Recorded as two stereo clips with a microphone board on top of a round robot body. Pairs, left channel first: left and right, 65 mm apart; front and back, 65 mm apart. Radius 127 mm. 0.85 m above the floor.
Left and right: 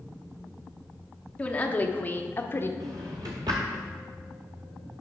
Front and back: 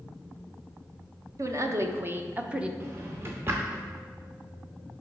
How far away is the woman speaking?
About 1.1 m.